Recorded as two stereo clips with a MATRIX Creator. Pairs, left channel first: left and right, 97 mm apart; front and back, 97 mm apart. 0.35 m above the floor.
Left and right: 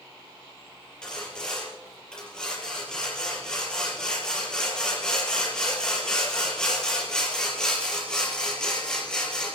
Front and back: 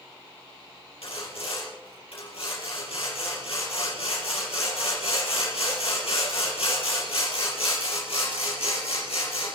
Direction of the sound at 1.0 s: 10° left.